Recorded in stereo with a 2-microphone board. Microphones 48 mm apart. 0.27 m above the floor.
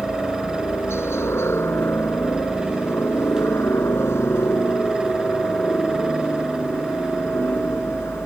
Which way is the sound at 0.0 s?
60° left (ahead or behind).